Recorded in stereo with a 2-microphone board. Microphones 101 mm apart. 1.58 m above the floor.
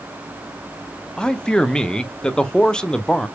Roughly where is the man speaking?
Centre.